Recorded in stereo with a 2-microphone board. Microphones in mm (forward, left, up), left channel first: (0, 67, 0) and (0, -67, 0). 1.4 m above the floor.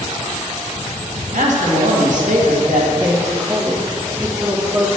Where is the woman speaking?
25° right (ahead or behind), 1.4 m.